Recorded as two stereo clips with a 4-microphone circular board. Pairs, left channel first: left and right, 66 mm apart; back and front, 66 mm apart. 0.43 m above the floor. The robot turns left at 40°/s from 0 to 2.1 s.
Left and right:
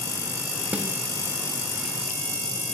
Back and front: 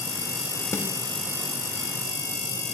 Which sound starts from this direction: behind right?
A snare drum, at 0.7 s.